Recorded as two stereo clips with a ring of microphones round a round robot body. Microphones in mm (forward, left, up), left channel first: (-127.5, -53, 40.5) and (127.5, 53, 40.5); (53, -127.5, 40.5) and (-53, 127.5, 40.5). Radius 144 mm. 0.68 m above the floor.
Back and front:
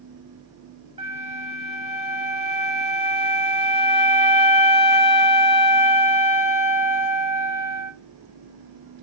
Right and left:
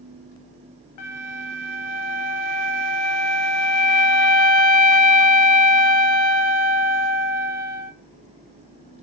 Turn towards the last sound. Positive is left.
turn(degrees=-50)